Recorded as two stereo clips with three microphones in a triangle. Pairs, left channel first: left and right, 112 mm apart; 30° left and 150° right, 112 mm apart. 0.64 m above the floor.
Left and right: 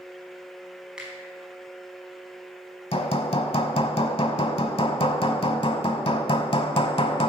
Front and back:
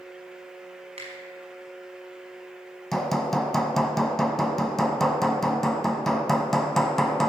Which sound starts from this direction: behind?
A finger snap, at 1.0 s.